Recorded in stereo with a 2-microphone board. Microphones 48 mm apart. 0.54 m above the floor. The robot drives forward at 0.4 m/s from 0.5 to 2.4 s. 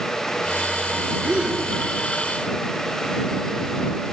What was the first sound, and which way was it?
A gasp, 30° right (ahead or behind).